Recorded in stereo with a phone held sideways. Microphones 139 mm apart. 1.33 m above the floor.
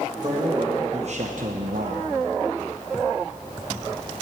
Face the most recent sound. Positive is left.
turn(degrees=-55)  # may be behind; listen again after turning